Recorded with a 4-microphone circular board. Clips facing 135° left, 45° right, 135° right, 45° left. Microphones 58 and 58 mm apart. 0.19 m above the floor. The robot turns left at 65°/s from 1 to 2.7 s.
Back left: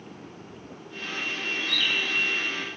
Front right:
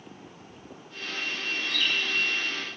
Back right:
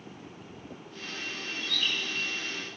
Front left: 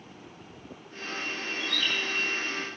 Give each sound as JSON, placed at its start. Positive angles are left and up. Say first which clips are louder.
{"t": 1.6, "sound": "a bird", "louder": "back left 1 dB, front left 1 dB", "azimuth_deg": -90, "distance_m": 5.0}